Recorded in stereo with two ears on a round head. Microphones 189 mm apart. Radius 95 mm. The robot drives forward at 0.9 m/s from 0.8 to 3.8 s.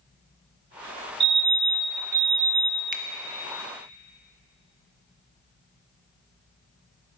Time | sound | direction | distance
1.2 | a fire alarm | 25° right (ahead or behind) | 1.5 m
2.9 | a finger snap | 40° right (ahead or behind) | 1.0 m